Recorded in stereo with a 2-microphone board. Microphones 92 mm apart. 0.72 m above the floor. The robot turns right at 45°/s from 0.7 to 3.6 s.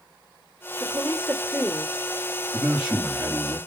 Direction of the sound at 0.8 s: 40° right (ahead or behind).